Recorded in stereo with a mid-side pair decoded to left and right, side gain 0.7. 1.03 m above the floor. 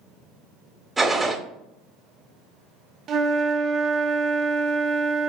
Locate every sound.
1.0 s a gunshot: 10° right, 1.3 m
3.1 s a flute: 40° right, 0.5 m